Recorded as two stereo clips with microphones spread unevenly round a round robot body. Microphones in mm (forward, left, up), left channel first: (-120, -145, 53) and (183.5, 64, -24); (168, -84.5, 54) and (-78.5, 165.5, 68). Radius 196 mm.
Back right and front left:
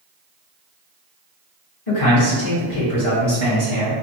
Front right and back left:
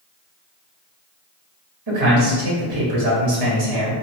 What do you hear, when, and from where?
1.9 s a man speaking: 170° left, 1.8 m